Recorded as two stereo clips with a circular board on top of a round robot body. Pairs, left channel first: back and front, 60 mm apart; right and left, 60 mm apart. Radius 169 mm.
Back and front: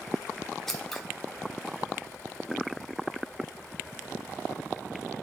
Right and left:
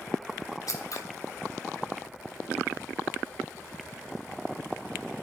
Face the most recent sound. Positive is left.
turn(degrees=-100)